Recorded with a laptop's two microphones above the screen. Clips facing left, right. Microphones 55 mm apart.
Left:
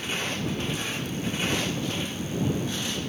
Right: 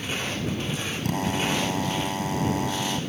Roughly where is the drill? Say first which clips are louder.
Right 7 dB; right.